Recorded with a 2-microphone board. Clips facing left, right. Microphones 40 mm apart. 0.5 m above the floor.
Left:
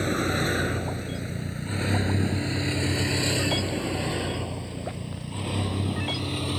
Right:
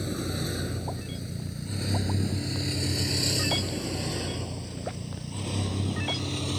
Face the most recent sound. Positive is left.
turn(degrees=15)  # may be behind; listen again after turning